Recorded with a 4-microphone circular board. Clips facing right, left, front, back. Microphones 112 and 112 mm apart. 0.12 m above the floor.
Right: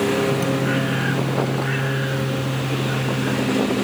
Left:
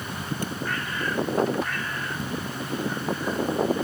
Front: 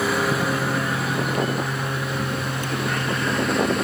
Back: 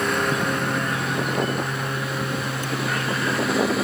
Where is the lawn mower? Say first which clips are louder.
Right 13 dB, front 1 dB; 85° right; by 3.8 s 90° right.